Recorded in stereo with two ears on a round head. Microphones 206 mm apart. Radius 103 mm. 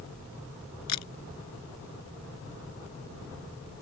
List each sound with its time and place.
0.9 s a camera shutter: 85° left